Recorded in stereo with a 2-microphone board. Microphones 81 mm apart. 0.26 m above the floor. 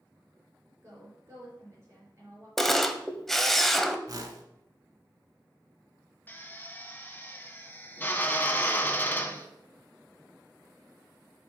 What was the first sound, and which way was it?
A woman speaking, 35° right (ahead or behind).